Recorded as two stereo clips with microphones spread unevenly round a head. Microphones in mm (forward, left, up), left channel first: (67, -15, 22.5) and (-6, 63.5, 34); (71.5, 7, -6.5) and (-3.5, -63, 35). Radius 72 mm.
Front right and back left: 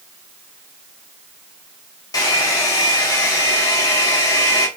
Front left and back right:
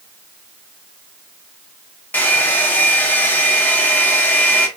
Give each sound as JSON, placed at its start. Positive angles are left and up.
{"t": 2.1, "sound": "a hair dryer", "azimuth_deg": -65, "distance_m": 1.2}